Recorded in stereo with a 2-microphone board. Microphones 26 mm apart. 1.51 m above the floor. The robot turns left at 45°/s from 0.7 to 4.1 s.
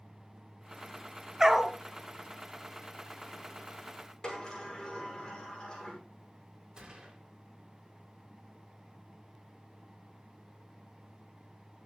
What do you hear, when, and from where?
1.4 s a dog barking: 20° right (ahead or behind), 1.6 m; by 1.8 s 5° right (ahead or behind), 1.6 m
4.2 s a sliding door: 25° left (ahead or behind), 5.5 m
6.8 s a gunshot: 25° right (ahead or behind), 4 m